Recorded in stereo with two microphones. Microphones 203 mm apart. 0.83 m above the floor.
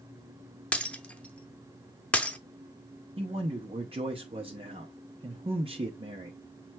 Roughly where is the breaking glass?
Centre.